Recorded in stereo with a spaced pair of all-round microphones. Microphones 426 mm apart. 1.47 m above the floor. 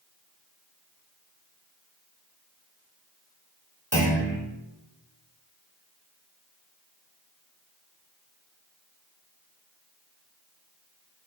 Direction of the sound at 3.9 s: 35° right (ahead or behind).